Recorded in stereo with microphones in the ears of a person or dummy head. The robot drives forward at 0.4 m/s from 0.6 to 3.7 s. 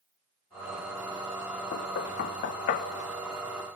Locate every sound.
1.7 s knocking: 65° left (ahead or behind), 1.3 m; by 2.9 s 50° left (ahead or behind), 1.5 m